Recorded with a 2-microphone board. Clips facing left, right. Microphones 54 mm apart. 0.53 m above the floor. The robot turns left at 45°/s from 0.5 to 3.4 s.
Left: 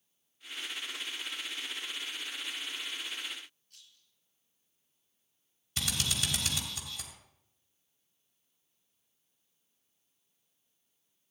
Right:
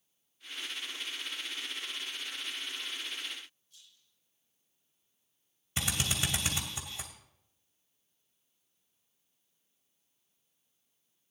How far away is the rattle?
About 7.5 m.